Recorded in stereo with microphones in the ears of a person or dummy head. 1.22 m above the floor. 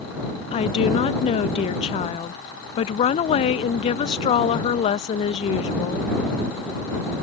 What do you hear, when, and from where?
0.5 s a woman speaking: 25° left (ahead or behind)